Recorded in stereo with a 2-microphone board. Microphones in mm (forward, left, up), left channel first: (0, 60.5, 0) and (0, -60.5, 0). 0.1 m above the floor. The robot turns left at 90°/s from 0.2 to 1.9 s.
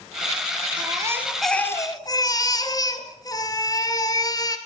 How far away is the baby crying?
About 1.5 m.